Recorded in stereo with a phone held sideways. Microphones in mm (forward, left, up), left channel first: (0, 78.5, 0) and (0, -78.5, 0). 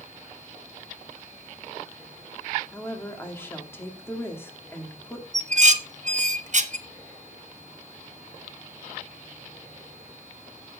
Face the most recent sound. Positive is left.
turn(degrees=-50)  # may be behind; listen again after turning